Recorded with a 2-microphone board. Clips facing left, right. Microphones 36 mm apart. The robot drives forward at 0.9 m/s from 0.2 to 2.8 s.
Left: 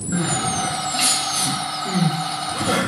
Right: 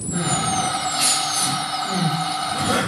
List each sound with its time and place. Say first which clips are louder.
0.1 s crying: right 1 dB; 80° left, 1.0 m; by 2.8 s 25° left (ahead or behind), 2.5 m